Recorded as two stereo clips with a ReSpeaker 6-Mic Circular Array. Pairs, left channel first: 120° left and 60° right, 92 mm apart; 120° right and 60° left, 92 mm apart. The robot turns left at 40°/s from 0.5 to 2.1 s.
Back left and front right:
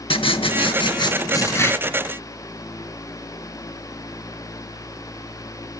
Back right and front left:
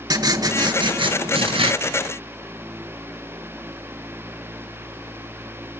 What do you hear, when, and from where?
0.1 s writing: 105° left, 0.8 m; by 1.7 s 55° left, 0.8 m